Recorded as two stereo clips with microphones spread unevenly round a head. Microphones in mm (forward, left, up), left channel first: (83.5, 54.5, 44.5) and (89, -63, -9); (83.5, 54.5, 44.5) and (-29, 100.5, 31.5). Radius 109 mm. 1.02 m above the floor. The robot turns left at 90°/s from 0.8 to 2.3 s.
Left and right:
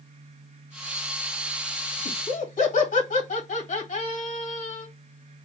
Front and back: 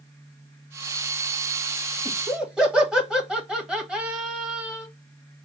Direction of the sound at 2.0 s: 100° left.